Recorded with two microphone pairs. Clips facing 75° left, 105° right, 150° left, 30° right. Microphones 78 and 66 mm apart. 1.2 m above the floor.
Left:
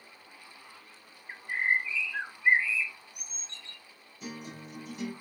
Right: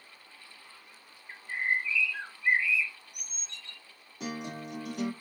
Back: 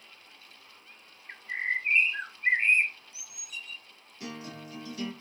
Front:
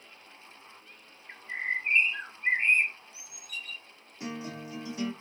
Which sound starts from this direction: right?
A guitar, at 4.2 s.